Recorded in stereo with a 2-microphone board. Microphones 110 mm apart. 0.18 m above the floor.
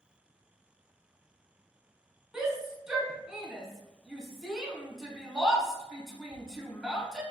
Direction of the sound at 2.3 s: 5° right (ahead or behind).